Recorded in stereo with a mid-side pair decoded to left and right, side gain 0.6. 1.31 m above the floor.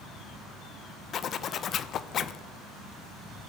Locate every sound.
1.1 s a zipper: 45° left, 0.6 m